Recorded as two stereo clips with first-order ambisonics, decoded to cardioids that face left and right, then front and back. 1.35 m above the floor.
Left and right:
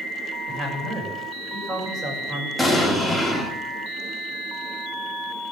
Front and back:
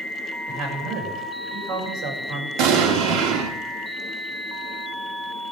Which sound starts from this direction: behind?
An explosion, at 2.6 s.